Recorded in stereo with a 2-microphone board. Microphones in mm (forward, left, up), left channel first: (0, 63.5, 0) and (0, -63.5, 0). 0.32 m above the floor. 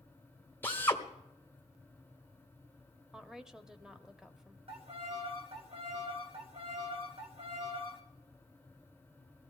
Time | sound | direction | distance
0.6 | a drill | 20° left (ahead or behind) | 1.4 m
3.1 | a woman speaking | 5° right (ahead or behind) | 0.9 m
4.7 | a violin | 50° right (ahead or behind) | 2 m